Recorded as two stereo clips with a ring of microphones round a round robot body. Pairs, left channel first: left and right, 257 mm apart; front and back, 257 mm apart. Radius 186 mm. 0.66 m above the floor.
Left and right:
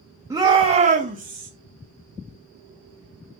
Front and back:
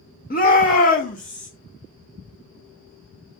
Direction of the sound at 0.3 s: 20° right.